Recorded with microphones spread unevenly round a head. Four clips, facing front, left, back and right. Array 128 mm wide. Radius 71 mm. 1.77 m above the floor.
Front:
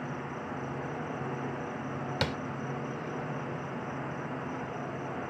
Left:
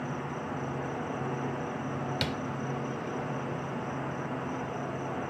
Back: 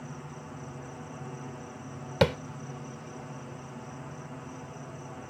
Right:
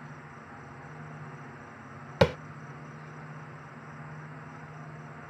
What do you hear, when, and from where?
0.0 s an insect: 60° left
2.2 s tapping: 130° right